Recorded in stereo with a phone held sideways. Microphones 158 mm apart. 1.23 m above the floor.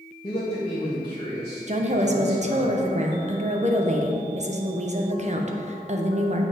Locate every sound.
0.2 s a man speaking: 35° left (ahead or behind), 1.5 m
1.7 s a woman speaking: 50° right (ahead or behind), 0.9 m